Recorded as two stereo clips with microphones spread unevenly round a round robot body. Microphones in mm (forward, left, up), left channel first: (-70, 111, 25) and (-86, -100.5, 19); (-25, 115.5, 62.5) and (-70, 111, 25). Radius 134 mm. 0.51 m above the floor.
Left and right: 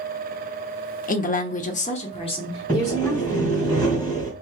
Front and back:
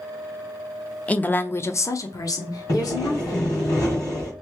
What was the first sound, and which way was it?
A woman speaking, 110° left.